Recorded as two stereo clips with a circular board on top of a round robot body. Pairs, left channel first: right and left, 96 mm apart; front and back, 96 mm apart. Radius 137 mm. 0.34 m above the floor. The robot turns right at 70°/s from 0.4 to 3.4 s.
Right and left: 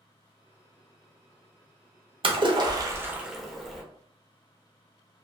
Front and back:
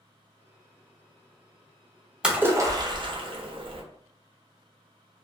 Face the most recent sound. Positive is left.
turn(degrees=180)